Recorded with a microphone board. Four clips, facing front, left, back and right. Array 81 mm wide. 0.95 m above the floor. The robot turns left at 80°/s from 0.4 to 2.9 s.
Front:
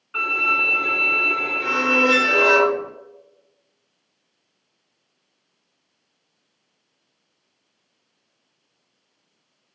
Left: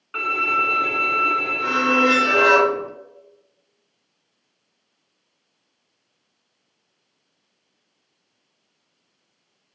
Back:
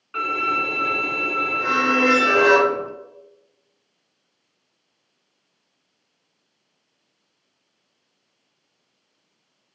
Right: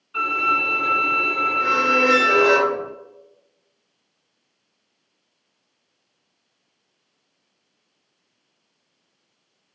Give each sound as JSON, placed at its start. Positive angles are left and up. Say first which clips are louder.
{"t": 0.1, "sound": "a violin", "louder": "right 1 dB, back 1 dB", "azimuth_deg": 100, "distance_m": 1.8}
{"t": 1.6, "sound": "a squeak", "louder": "even, back 1 dB", "azimuth_deg": -150, "distance_m": 1.7}